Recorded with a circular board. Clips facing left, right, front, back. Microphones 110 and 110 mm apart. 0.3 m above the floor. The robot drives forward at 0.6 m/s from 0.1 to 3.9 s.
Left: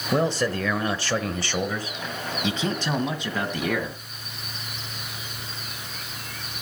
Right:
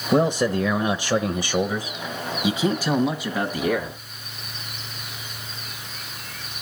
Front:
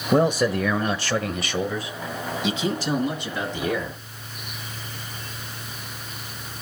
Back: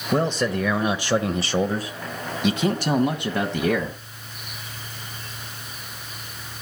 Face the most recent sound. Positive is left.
turn(degrees=-175)